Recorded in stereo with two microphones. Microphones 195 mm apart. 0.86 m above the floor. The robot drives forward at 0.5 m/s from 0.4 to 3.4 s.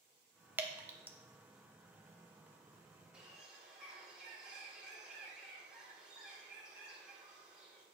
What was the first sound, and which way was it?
Dripping, 10° right (ahead or behind).